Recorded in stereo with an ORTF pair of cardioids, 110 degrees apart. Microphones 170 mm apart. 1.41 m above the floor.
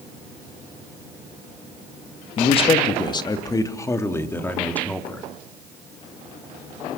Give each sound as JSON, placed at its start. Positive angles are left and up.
{"t": 2.4, "sound": "a man speaking", "azimuth_deg": 35, "distance_m": 2.5}